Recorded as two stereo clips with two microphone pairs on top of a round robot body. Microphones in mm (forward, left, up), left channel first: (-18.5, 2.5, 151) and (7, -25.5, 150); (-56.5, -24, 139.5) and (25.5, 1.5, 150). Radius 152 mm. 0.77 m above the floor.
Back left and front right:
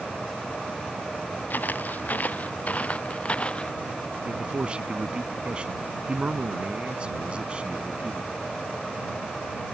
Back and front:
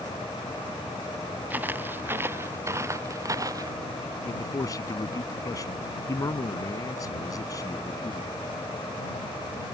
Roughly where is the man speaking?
Behind right.